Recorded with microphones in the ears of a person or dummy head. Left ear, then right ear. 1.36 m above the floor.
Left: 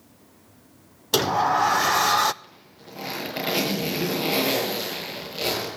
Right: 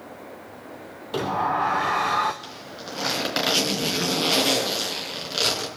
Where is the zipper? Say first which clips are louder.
Right 11 dB; 60° right (ahead or behind), 4.5 m.